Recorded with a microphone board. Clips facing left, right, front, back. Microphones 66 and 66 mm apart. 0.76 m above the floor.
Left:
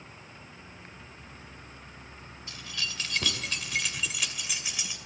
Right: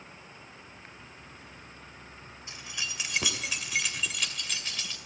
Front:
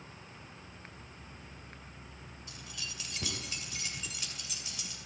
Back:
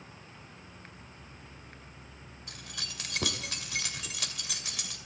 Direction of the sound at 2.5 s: 155° right.